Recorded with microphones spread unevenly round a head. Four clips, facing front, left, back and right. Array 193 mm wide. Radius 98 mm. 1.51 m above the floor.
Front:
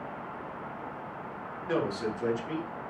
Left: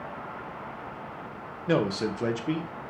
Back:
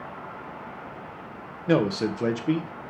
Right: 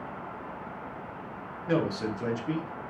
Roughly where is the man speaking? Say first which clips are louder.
Left 2 dB, back 7 dB; behind left.